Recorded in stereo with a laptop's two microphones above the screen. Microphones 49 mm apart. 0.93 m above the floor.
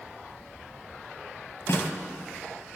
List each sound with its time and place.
1.7 s a snare drum: 55° left (ahead or behind), 4.5 m